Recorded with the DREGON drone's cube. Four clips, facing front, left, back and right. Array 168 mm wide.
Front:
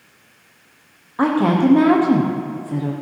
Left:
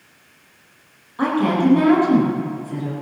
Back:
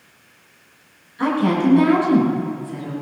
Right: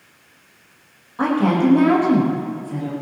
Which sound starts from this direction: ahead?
A woman speaking, at 1.2 s.